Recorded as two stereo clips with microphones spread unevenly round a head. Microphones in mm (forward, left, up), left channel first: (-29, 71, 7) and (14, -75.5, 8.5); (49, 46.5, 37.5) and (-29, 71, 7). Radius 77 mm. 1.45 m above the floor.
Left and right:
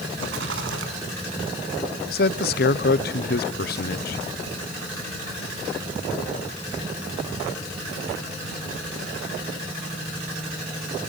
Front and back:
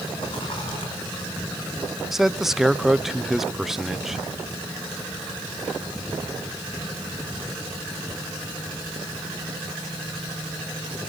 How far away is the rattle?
About 5 m.